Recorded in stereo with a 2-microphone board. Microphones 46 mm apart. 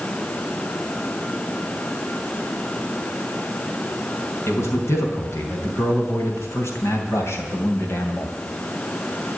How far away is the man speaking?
About 4.5 m.